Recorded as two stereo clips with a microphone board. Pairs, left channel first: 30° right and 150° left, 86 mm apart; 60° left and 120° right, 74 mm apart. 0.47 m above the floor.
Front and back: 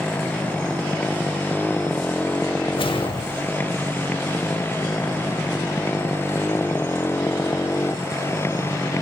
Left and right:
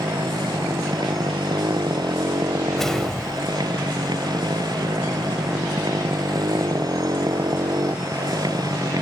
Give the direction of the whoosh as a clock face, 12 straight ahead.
1 o'clock.